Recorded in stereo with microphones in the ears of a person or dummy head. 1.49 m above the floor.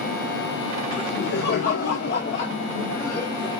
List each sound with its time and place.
0.9 s laughter: 65° left (ahead or behind), 2 m; by 3.5 s 5° right (ahead or behind), 0.9 m